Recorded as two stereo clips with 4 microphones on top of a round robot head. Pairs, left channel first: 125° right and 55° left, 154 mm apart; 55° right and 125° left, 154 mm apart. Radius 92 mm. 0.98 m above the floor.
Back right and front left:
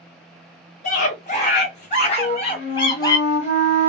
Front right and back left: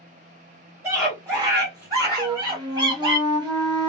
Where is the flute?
170° right, 1.9 m.